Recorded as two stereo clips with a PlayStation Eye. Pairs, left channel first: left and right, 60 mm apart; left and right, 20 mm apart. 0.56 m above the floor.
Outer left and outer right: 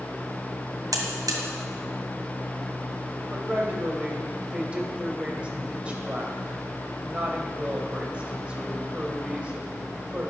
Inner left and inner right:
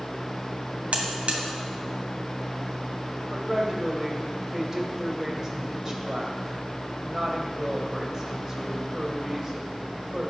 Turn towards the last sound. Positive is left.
turn(degrees=-20)  # may be behind; listen again after turning